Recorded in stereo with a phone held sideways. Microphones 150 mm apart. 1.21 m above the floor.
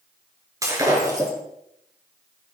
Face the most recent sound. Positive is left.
turn(degrees=-20)  # may be behind; listen again after turning